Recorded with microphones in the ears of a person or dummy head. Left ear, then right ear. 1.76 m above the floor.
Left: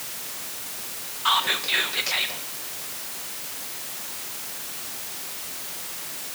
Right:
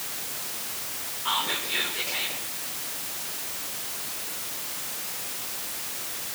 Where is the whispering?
65° left (ahead or behind), 1.8 m.